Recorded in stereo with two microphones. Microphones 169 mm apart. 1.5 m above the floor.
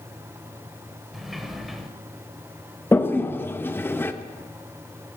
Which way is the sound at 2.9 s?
15° left (ahead or behind).